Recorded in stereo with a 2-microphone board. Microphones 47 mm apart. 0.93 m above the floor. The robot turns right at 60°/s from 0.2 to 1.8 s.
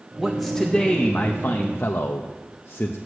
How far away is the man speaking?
About 0.6 m.